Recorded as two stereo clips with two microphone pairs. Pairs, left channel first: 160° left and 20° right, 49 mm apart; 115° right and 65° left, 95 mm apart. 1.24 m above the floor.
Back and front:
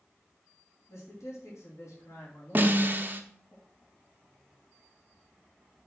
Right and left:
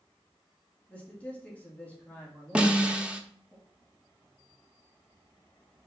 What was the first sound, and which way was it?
A man speaking, 175° left.